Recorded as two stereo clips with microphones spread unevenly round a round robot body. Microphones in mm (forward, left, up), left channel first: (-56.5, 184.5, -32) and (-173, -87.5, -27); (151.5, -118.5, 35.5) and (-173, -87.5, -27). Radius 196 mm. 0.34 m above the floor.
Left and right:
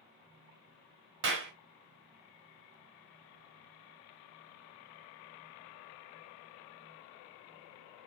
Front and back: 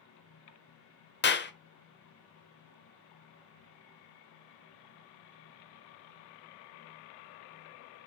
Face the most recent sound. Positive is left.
turn(degrees=-65)